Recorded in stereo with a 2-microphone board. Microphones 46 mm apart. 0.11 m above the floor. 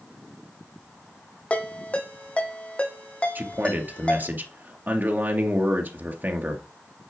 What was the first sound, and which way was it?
A ringtone, 25° left (ahead or behind).